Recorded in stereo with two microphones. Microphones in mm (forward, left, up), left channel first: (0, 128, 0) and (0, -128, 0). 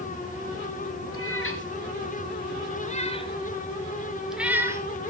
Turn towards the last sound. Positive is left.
turn(degrees=-10)  # may be behind; listen again after turning